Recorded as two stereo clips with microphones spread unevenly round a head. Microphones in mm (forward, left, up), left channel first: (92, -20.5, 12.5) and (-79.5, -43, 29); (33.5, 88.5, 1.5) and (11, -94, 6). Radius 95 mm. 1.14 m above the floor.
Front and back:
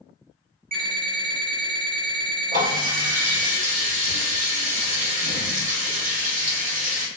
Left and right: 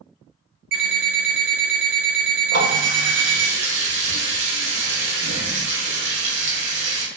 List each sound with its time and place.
0.7 s an alarm clock: 140° right, 1.5 m
2.5 s a running tap: 130° right, 0.8 m